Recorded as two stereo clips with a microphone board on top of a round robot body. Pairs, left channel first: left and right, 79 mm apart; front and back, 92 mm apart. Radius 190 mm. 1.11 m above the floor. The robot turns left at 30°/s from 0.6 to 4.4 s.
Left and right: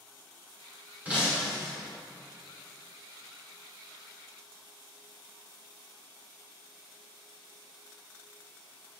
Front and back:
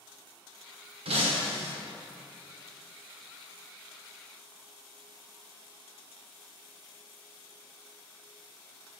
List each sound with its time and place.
1.1 s breaking glass: 165° right, 1.7 m; by 1.7 s 175° left, 1.7 m